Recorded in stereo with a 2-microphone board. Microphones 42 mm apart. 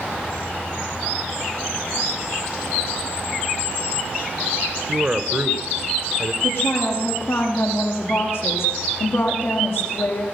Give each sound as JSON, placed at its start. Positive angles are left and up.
{"t": 4.9, "sound": "a man speaking", "side_deg": -25, "distance_m": 1.5}
{"t": 6.4, "sound": "a woman speaking", "side_deg": 65, "distance_m": 6.5}